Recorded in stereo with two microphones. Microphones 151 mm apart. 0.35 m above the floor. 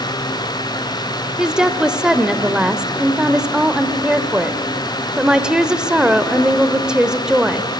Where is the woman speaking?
5° right (ahead or behind), 0.9 m.